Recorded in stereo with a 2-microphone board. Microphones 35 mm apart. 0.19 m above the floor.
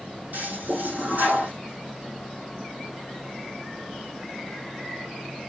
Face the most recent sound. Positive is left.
turn(degrees=-60)  # may be behind; listen again after turning